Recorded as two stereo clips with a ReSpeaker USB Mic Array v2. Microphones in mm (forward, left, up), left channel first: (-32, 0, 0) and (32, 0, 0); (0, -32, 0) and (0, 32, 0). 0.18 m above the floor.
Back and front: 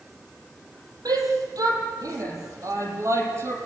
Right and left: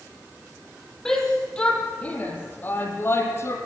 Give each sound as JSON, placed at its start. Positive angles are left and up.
{"t": 1.1, "sound": "a shout", "azimuth_deg": -5, "distance_m": 6.5}